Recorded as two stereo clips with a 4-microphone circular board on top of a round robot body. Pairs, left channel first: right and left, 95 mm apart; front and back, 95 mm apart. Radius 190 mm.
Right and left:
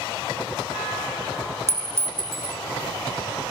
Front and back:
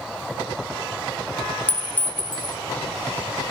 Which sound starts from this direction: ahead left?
A clink, at 1.7 s.